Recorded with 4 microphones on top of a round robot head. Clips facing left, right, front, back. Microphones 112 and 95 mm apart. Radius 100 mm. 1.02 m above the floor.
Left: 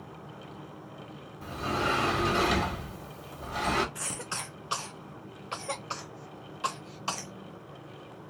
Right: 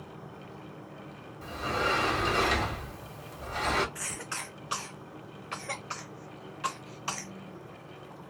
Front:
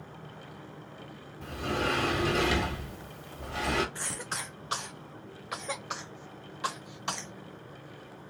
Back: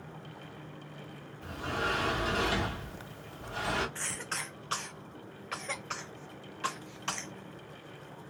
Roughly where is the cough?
Ahead left.